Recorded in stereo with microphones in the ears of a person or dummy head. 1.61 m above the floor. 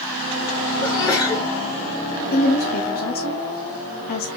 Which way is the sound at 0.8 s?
20° left (ahead or behind).